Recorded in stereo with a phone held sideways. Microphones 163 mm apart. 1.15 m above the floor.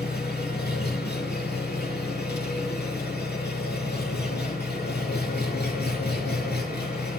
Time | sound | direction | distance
0.0 | an engine running | 85° left | 7 m